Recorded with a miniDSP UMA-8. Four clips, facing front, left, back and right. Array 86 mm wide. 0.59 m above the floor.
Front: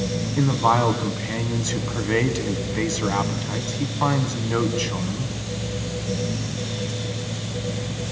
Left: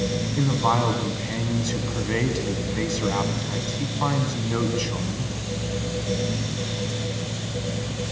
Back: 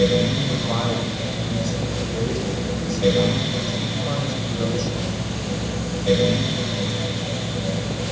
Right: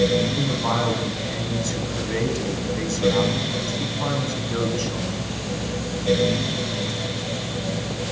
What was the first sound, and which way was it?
A man speaking, 15° left.